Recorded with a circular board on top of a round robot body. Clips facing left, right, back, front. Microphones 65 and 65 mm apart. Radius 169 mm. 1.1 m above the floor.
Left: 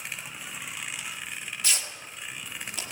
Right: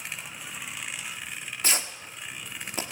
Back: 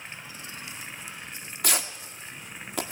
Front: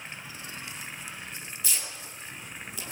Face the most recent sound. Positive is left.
turn(degrees=-145)